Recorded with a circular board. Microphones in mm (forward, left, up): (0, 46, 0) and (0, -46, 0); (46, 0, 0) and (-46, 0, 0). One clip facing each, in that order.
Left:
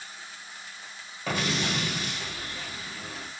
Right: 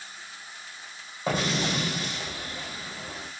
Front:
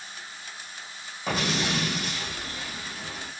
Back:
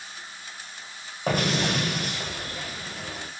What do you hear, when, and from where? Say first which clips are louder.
1.3 s an explosion: right 2 dB, back 3 dB; 155° right, 1.3 m